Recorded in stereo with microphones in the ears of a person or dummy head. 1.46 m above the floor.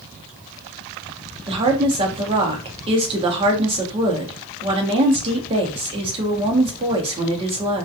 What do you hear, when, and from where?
1.5 s a woman speaking: 30° right (ahead or behind), 0.7 m